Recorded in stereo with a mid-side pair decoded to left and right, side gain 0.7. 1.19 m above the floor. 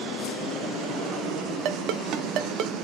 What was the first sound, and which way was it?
A ringtone, 55° right.